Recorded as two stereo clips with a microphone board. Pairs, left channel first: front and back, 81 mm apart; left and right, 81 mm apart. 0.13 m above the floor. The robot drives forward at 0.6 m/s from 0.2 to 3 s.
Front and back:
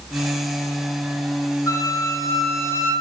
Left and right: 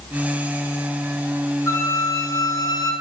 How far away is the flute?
About 2 m.